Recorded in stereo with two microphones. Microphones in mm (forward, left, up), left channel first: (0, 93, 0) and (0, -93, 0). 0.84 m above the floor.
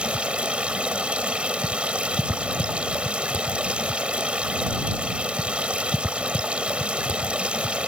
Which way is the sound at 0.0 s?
5° right (ahead or behind).